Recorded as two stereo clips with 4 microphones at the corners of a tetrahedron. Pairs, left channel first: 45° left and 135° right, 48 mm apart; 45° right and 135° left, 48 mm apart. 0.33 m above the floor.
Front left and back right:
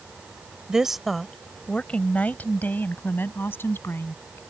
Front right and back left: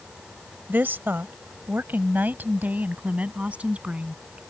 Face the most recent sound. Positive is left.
turn(degrees=75)